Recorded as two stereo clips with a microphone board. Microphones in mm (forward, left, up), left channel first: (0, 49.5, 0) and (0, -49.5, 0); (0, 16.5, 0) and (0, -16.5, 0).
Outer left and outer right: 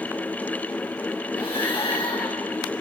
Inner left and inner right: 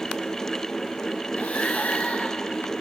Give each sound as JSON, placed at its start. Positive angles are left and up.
{"t": 1.3, "sound": "breathing", "side_deg": 65, "distance_m": 3.0}